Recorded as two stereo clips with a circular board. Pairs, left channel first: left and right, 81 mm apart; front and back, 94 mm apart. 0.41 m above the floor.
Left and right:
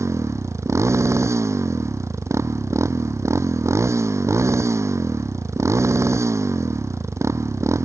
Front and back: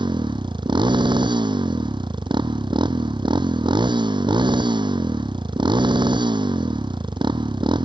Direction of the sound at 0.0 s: 145° right.